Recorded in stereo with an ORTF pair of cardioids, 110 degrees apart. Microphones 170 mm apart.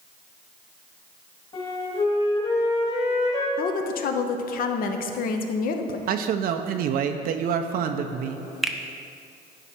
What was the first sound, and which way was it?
A flute, 35° left.